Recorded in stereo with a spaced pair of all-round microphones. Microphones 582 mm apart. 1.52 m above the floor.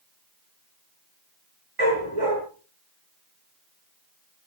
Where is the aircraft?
I don't hear an aircraft.